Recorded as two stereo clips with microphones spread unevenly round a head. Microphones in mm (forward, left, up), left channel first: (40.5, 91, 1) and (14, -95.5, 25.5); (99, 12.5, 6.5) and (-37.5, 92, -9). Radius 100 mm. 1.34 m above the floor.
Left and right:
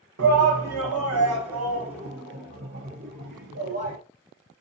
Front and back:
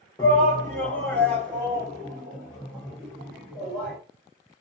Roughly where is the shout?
Right.